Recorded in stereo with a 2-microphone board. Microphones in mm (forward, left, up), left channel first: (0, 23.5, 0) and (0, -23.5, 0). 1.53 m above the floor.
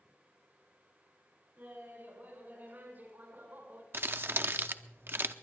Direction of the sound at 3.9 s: 55° right (ahead or behind).